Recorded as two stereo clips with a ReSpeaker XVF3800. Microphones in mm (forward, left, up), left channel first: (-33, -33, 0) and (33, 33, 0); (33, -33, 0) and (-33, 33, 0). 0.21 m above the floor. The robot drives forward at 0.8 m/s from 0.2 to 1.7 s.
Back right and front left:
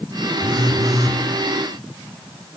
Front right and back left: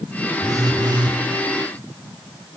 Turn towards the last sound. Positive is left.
turn(degrees=105)